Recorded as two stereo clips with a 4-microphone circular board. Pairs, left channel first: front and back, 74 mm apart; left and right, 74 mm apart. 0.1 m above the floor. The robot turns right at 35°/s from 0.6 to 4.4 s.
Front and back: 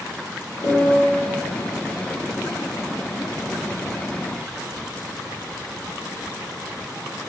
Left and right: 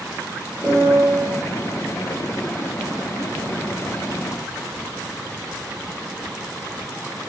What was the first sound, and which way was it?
A piano, 50° right.